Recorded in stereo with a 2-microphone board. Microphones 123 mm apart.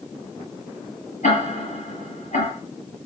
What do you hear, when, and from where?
1.2 s ticking: 75° left (ahead or behind), 8.5 m